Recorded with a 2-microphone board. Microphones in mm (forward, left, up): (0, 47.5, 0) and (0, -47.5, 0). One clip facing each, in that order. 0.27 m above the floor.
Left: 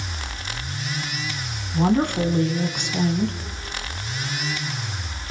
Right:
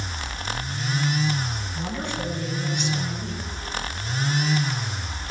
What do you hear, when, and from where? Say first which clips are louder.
1.7 s a woman speaking: left 12 dB; 60° left (ahead or behind), 3 m